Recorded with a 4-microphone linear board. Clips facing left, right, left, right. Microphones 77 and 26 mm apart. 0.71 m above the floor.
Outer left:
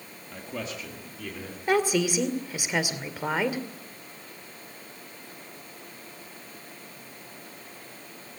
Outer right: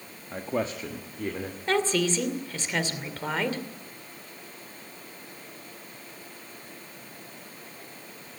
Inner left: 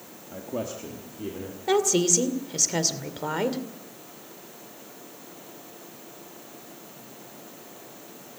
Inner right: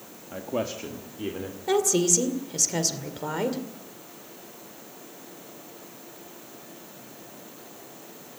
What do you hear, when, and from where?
0.3 s a man speaking: 35° right (ahead or behind), 1.4 m; by 1.6 s 40° right (ahead or behind), 3 m
1.7 s a woman speaking: 10° left (ahead or behind), 2 m